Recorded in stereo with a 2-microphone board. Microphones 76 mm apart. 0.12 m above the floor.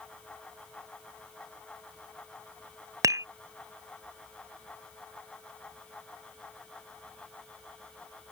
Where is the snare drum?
I don't hear a snare drum.